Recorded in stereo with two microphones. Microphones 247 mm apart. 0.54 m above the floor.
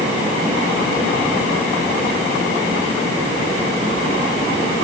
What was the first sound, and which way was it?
Only background noise.